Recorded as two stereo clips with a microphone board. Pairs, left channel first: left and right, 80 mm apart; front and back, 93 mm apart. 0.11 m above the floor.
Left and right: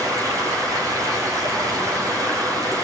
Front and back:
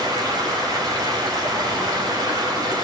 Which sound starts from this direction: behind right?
Running water, at 0.0 s.